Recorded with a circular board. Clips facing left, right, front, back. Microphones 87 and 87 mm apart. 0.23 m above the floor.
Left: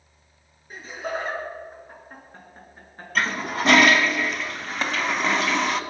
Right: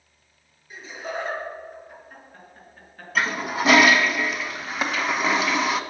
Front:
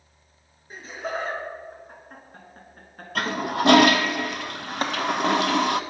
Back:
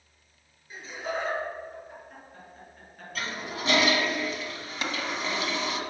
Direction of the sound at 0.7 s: 45° left.